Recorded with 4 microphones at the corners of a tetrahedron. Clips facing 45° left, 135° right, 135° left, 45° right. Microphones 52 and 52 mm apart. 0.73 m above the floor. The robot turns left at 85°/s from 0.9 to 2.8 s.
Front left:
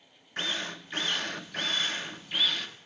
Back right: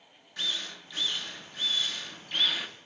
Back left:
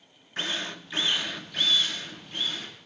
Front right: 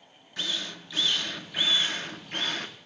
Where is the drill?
85° left, 1.0 m; by 2.7 s 65° right, 1.0 m.